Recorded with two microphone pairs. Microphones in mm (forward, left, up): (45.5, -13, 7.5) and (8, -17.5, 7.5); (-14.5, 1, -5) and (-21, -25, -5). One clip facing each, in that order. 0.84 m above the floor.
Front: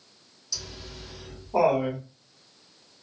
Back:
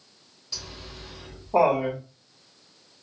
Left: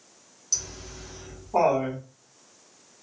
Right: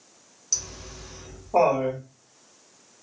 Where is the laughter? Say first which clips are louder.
Even, right 1 dB; 170° right, 1.1 m.